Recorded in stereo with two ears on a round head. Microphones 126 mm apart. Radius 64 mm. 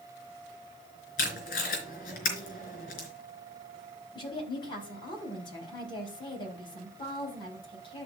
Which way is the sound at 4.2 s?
35° left (ahead or behind).